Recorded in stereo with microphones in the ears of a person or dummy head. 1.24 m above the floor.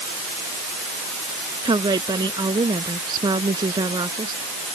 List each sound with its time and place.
1.6 s a woman speaking: 20° right (ahead or behind)